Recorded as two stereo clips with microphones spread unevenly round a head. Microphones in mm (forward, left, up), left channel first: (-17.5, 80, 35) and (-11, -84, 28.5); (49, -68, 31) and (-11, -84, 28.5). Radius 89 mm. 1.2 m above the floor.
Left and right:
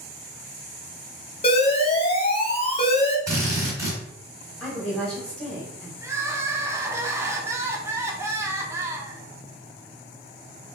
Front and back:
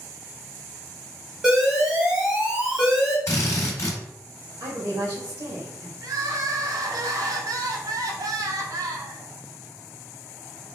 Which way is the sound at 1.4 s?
125° left.